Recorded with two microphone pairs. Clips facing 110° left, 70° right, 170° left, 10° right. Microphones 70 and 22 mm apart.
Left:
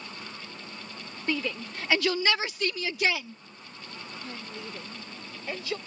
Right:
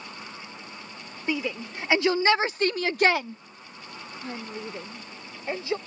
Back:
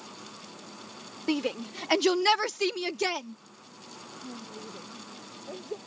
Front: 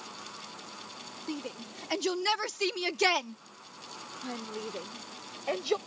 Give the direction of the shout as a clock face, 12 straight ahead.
5 o'clock.